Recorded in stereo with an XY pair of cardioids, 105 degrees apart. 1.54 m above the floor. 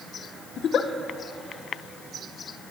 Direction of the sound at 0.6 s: 60° left.